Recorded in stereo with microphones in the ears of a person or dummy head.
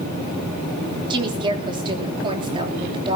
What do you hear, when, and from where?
1.1 s a woman speaking: 30° right (ahead or behind), 3.5 m